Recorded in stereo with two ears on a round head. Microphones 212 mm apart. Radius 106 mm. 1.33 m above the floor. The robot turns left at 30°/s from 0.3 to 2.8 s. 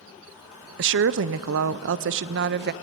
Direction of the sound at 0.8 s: 65° right.